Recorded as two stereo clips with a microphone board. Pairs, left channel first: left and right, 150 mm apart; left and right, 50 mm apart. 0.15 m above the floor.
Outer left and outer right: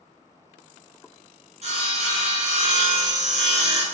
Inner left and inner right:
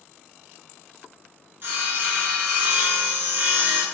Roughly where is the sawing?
Right.